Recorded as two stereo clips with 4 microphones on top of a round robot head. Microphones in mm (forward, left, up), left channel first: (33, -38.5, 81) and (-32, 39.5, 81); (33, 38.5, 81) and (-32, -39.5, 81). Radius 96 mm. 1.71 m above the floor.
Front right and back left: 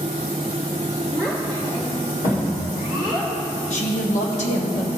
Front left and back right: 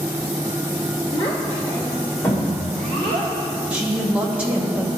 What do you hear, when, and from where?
1.1 s a child speaking: 5° left, 1.5 m; by 3.3 s 35° right, 3.5 m
3.7 s a woman speaking: 55° right, 1.0 m